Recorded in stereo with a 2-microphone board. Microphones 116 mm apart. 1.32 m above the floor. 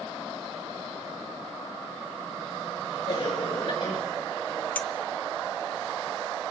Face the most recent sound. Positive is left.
turn(degrees=15)  # may be behind; listen again after turning